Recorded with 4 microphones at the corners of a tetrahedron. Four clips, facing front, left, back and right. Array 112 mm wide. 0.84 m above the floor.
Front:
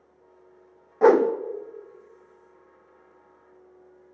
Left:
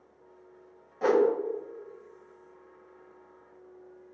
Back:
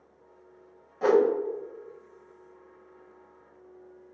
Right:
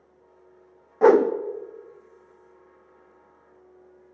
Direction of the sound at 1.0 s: 45° right.